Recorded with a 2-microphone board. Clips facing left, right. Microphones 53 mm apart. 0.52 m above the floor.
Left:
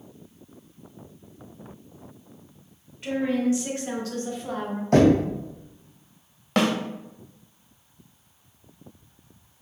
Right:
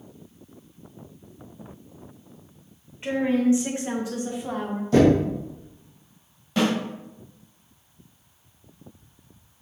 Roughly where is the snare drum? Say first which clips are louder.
Left 1 dB; left.